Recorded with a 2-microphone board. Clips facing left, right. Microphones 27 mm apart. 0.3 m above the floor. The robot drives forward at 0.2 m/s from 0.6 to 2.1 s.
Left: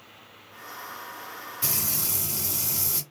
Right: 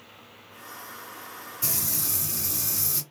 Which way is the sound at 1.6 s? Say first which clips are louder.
Left 1 dB; 40° left (ahead or behind).